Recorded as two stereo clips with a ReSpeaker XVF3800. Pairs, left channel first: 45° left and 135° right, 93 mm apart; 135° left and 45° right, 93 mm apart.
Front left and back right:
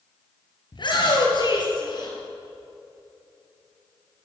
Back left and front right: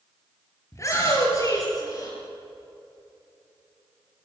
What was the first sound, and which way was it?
A shout, 75° left.